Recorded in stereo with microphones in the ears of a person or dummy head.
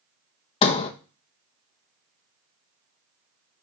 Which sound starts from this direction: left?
A sliding door, at 0.6 s.